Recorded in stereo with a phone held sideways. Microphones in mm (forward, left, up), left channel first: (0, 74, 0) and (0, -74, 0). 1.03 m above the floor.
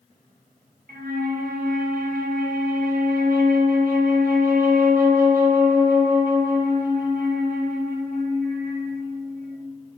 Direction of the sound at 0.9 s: 75° right (ahead or behind).